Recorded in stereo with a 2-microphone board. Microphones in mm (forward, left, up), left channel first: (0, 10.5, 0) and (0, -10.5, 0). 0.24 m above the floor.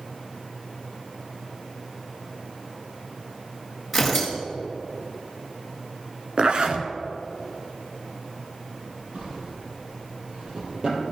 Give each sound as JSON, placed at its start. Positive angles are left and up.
{"t": 3.9, "sound": "tearing paper", "side_deg": 5, "distance_m": 4.0}
{"t": 6.4, "sound": "a zipper", "side_deg": -50, "distance_m": 1.1}
{"t": 9.1, "sound": "a drawer", "side_deg": -50, "distance_m": 5.0}